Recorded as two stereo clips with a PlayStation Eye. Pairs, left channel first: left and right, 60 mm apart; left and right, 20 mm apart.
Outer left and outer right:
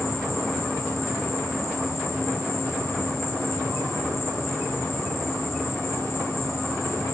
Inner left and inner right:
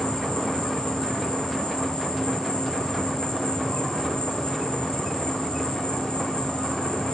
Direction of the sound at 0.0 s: 60° left (ahead or behind).